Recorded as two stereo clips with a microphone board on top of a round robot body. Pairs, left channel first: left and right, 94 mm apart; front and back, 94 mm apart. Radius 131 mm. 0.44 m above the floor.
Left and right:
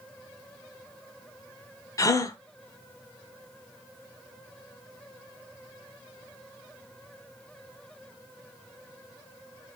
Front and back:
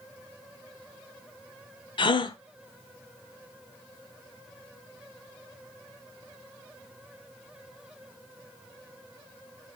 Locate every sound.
2.0 s a gasp: 35° left, 0.6 m